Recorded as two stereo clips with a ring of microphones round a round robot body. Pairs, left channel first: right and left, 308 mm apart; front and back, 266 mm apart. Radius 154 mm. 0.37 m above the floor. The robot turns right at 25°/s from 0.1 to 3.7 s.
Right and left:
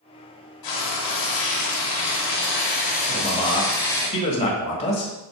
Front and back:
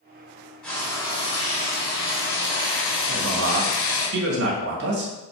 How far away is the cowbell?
No cowbell in this recording.